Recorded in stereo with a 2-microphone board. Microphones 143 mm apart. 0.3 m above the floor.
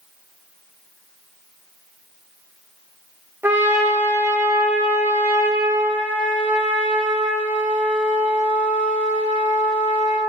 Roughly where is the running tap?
I don't hear a running tap.